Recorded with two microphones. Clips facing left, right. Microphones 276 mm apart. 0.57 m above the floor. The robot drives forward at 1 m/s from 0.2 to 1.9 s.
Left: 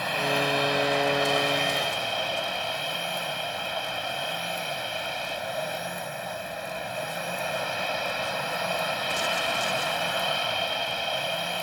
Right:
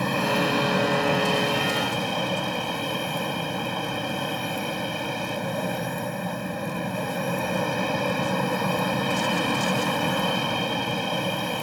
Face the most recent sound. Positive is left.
turn(degrees=-55)  # may be behind; listen again after turning